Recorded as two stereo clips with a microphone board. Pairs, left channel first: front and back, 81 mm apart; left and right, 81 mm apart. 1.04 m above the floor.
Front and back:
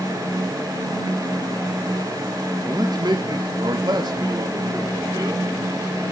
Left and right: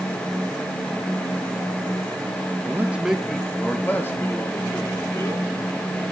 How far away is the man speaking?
About 1.3 m.